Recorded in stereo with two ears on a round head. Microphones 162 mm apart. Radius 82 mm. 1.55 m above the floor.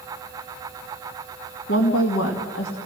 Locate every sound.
1.7 s a woman speaking: 80° left, 2 m